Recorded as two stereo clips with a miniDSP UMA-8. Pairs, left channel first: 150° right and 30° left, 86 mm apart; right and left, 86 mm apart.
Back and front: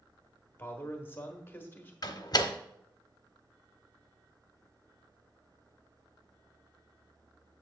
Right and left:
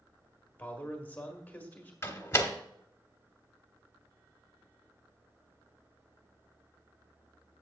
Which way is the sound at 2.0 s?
135° right.